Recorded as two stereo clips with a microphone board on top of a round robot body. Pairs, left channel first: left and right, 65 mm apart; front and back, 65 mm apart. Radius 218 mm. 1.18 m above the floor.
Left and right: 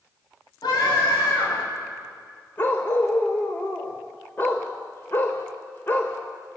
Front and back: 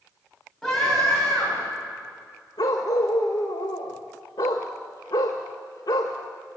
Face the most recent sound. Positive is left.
turn(degrees=35)